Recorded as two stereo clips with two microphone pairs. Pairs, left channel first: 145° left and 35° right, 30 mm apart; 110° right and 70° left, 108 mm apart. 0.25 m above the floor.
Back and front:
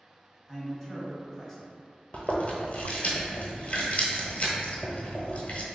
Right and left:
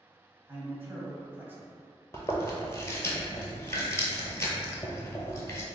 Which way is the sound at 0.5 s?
95° left.